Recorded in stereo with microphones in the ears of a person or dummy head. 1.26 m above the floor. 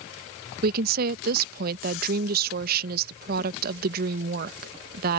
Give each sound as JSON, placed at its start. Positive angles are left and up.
{"t": 0.6, "sound": "a woman speaking", "side_deg": -55}